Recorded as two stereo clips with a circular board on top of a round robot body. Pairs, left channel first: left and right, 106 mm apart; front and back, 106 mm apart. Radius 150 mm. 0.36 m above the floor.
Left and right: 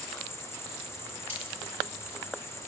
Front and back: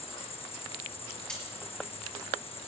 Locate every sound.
0.0 s an insect: 25° left, 1.8 m
1.3 s cutlery clinking: 80° left, 6 m